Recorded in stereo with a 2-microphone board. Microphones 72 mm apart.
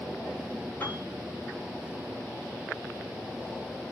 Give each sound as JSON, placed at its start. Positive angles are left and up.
{"t": 0.8, "sound": "a piano", "side_deg": 25, "distance_m": 1.2}